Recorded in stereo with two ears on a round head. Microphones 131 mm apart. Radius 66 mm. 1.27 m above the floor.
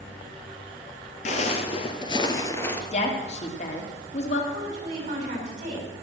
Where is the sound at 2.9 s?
45° left (ahead or behind), 2.5 m.